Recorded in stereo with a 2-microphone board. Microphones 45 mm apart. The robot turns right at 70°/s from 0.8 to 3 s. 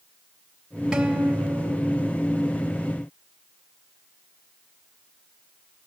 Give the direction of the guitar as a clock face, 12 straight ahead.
5 o'clock.